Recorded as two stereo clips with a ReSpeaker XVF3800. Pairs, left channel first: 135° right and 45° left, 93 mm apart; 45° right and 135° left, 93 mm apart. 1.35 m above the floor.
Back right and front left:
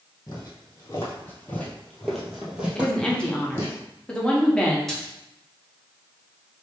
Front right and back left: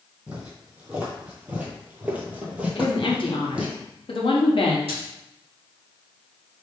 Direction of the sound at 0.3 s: 155° right.